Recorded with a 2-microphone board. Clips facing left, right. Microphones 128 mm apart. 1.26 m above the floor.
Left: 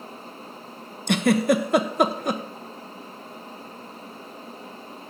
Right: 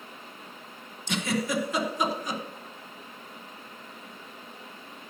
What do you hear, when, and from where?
1.1 s a giggle: 60° left (ahead or behind), 0.9 m